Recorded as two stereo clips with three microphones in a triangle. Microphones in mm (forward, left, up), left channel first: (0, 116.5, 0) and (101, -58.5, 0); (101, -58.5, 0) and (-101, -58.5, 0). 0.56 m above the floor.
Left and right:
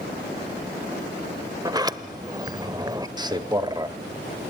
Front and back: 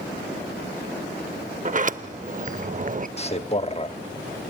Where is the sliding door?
130° right, 0.6 m.